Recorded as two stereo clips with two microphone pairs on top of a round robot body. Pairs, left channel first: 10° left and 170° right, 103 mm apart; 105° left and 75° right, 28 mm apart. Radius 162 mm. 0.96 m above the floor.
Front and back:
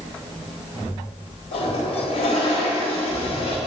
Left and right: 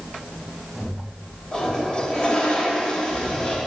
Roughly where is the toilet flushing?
Ahead left.